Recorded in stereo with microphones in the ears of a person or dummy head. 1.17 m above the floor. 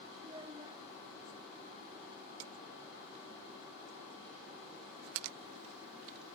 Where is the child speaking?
25° right (ahead or behind), 2 m.